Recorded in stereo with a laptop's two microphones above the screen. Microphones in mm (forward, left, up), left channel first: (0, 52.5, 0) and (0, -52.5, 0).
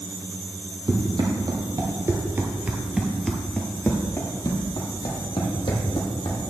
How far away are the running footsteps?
About 1.6 m.